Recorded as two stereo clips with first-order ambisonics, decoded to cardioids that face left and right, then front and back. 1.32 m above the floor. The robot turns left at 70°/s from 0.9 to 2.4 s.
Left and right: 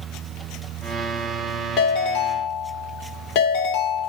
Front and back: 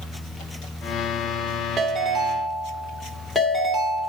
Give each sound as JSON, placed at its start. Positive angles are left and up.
{"t": 1.8, "sound": "a ringtone", "azimuth_deg": 120, "distance_m": 2.0}